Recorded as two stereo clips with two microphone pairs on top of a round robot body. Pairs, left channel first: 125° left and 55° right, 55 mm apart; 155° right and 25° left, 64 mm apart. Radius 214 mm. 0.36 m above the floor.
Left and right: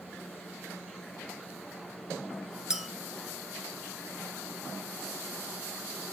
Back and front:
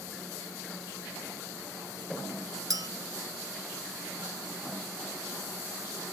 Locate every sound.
2.7 s a clink: 20° left, 1.5 m